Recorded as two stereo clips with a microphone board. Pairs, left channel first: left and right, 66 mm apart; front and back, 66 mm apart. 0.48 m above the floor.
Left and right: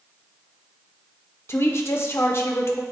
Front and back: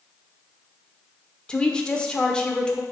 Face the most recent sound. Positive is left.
turn(degrees=70)